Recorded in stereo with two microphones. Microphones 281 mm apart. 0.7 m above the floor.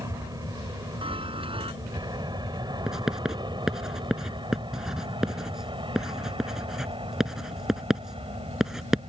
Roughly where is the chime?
Centre.